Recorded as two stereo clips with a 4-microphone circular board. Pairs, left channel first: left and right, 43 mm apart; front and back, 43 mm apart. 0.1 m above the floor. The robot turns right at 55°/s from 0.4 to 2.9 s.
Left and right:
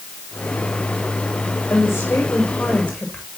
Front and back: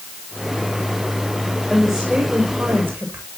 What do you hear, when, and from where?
1.7 s a woman speaking: 95° left, 8 m; by 3.2 s 160° left, 8 m